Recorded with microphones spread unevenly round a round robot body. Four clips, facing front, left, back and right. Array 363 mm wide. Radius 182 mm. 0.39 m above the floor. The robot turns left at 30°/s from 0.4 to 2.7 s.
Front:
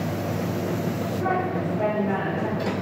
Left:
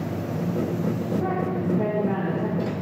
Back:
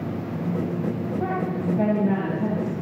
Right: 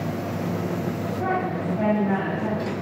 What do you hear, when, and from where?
1.2 s a woman speaking: 140° right, 3.5 m; by 2.7 s 175° left, 3.5 m